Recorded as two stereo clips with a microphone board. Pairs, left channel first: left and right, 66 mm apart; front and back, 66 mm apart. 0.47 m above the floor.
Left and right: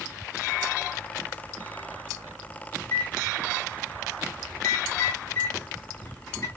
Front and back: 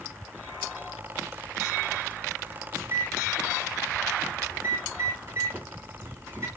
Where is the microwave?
125° left, 2.5 m.